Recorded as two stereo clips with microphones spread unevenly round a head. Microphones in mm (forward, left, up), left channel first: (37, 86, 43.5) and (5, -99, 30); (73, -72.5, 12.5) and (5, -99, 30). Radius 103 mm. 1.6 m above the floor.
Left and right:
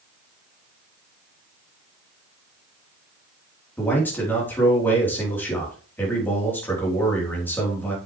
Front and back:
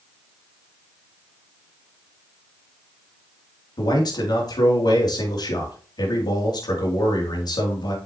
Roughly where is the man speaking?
Ahead.